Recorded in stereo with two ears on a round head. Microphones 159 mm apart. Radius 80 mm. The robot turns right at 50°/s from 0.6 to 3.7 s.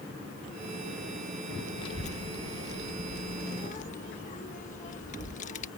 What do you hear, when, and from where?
1.8 s a child speaking: 25° left (ahead or behind); by 5.7 s 45° left (ahead or behind)